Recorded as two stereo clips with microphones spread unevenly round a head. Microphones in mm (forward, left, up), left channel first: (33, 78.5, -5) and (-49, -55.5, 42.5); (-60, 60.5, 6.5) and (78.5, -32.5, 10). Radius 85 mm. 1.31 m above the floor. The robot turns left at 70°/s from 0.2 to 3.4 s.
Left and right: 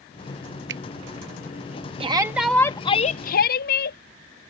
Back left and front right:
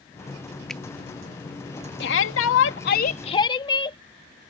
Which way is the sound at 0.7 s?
125° right.